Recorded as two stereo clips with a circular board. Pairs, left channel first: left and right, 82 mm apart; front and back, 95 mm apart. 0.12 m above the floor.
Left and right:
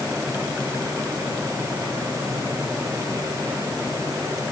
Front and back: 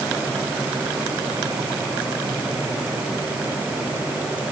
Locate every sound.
Only background noise.